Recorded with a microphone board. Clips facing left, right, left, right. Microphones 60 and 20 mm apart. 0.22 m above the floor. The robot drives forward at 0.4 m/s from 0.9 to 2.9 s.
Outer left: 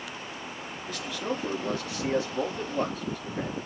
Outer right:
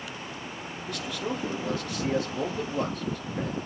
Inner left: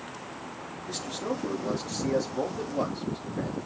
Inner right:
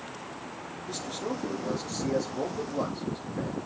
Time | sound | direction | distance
0.9 | a man speaking | 5° left (ahead or behind) | 4 m